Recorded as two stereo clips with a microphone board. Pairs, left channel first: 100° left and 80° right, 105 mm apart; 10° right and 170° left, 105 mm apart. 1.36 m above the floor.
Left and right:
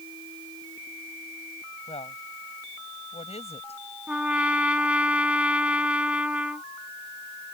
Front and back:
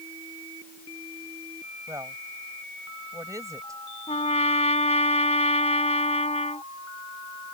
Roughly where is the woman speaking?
Left.